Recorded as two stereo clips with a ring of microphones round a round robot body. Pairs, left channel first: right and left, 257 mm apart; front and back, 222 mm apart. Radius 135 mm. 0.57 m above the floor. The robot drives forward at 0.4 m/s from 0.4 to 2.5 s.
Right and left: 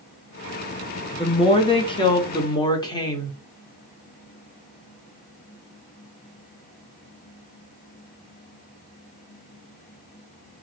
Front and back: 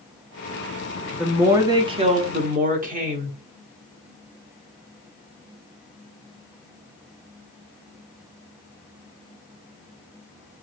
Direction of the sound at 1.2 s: 95° right.